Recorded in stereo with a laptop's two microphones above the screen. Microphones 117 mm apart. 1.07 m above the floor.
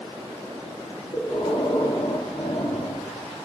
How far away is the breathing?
About 1.3 m.